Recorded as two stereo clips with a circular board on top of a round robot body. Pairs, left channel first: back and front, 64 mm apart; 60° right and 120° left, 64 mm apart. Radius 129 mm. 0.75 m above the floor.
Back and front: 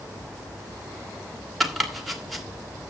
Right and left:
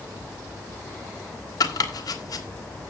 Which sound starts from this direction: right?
Chopping, at 1.6 s.